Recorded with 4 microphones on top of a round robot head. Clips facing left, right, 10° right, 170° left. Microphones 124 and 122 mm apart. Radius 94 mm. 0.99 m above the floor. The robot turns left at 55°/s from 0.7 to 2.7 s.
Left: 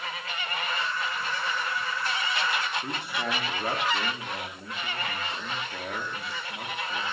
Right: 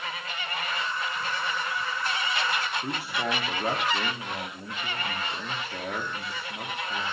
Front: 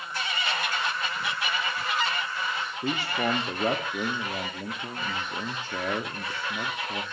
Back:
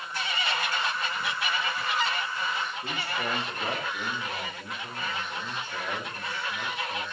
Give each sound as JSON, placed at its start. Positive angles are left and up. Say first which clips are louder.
{"t": 2.8, "sound": "a man speaking", "louder": "right 2 dB, front 5 dB", "azimuth_deg": -5, "distance_m": 2.0}